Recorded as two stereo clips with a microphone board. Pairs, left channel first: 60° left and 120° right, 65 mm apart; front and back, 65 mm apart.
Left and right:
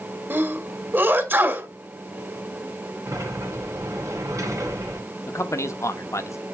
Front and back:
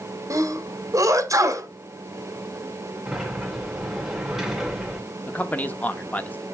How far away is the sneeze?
About 1.7 m.